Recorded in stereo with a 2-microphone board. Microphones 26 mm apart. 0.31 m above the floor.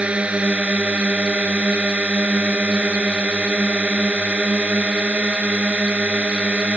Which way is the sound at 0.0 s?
55° right (ahead or behind).